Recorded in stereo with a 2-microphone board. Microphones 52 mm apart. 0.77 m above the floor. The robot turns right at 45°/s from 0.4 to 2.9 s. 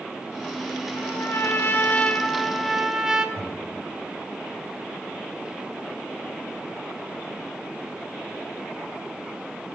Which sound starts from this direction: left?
A trumpet, at 0.9 s.